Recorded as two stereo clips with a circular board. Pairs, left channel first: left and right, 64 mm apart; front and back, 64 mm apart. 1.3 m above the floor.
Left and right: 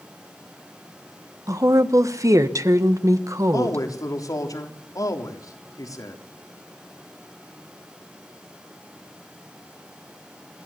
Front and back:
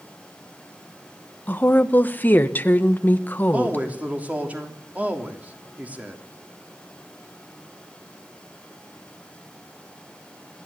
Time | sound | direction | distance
1.5 | a woman speaking | 60° right | 1.1 m
3.5 | a man speaking | 115° left | 3 m